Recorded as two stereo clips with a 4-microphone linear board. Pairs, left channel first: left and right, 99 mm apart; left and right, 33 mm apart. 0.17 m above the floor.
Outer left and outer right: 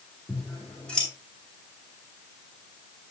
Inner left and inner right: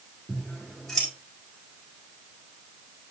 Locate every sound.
0.3 s scissors: 10° left (ahead or behind), 4 m